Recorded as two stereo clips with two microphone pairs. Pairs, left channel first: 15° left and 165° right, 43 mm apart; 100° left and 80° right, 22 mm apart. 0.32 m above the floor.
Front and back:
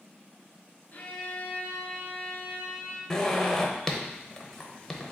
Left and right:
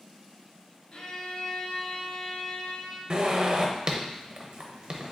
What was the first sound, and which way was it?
A violin, 65° left.